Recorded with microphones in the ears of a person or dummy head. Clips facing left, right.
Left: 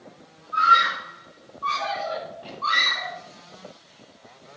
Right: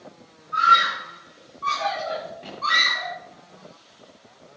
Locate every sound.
0.5 s a scream: 30° right (ahead or behind), 7.5 m; by 3.1 s 40° right (ahead or behind), 6 m